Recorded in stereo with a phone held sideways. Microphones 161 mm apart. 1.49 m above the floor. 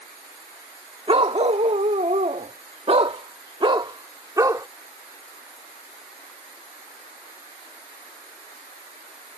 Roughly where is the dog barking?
Right.